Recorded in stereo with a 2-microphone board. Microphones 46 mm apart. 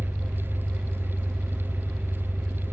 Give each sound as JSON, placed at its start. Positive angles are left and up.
{"t": 0.0, "sound": "an engine running", "side_deg": 5, "distance_m": 3.5}